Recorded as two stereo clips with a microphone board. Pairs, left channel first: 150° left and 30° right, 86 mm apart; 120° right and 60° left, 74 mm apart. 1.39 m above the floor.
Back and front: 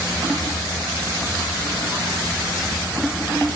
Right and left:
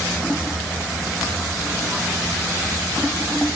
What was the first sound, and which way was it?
Only background noise.